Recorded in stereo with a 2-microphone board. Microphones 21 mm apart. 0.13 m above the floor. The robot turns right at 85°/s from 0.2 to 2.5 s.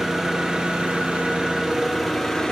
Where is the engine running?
155° right, 2.5 m; by 2.5 s 40° left, 2.5 m.